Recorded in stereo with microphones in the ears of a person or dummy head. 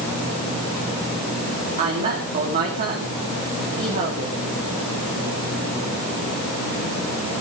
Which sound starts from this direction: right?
A woman speaking, at 1.8 s.